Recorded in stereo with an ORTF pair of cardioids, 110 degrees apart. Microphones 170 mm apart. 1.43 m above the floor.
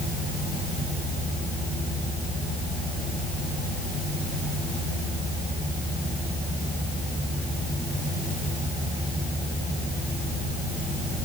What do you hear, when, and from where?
Only background noise.